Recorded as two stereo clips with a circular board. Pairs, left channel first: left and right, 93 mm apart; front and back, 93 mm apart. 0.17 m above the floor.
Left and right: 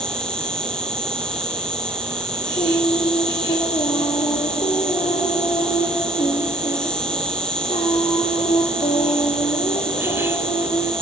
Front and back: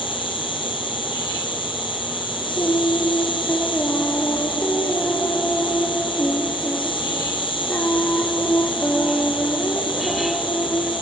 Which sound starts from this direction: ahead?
An insect, at 0.0 s.